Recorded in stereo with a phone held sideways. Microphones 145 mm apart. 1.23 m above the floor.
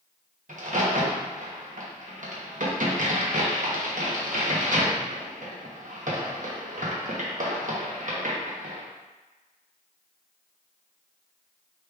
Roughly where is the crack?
Right.